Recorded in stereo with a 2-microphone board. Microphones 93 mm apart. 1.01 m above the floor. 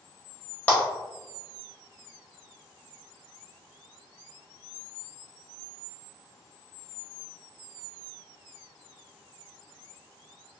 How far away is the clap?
About 1.4 m.